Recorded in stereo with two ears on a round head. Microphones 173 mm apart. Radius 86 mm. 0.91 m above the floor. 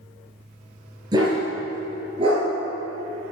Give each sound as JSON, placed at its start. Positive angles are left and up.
{"t": 1.1, "sound": "a dog barking", "side_deg": -20, "distance_m": 4.5}